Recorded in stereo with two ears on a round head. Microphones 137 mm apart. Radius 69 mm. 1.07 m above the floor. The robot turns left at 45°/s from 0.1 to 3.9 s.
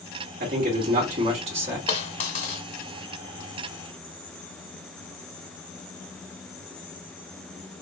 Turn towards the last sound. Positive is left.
turn(degrees=30)